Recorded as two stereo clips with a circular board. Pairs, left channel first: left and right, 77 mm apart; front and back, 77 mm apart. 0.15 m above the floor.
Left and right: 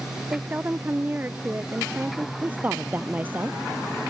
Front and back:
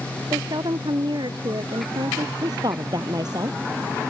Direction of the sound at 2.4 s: 155° right.